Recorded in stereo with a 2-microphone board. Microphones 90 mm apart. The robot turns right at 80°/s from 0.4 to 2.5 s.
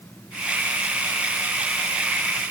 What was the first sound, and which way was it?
Only background noise.